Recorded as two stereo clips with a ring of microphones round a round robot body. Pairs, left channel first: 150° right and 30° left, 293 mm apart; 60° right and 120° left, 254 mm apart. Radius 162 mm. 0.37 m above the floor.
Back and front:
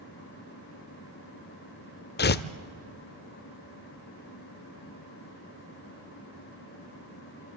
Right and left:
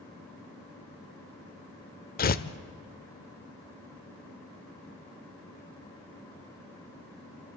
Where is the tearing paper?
105° right, 0.8 m.